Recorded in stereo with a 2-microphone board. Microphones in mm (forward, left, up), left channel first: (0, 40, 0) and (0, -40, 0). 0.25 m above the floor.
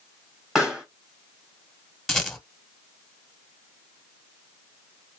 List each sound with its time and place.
0.6 s a pop: 5° right (ahead or behind), 1.3 m
2.1 s a rattle: 5° left (ahead or behind), 1.1 m